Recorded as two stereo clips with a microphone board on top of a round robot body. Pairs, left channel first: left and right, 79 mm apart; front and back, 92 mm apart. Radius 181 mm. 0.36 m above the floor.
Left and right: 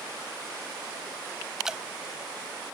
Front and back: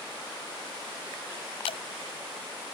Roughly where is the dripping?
Ahead.